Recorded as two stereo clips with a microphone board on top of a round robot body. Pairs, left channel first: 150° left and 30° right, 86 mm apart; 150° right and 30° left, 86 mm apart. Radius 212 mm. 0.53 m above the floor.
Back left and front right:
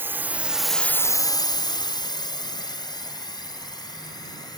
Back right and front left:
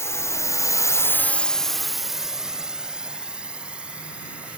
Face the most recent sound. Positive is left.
turn(degrees=110)